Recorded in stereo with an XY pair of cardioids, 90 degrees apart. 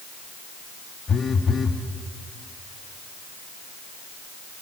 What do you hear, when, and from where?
1.1 s a phone buzzing: 50° left, 1.5 m